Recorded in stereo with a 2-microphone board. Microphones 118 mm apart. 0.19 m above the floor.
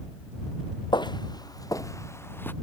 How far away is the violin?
I don't hear a violin.